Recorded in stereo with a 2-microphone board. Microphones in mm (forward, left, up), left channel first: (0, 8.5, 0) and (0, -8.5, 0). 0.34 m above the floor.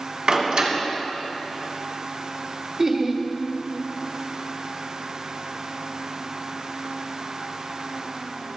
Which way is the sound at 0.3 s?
70° right (ahead or behind).